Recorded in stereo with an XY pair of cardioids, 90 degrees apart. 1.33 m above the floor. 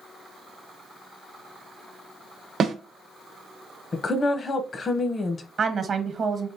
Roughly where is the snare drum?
Ahead right.